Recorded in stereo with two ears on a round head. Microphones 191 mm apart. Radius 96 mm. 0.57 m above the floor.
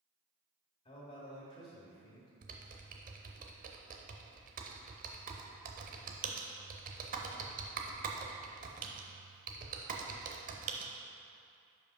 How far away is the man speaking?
About 1.8 m.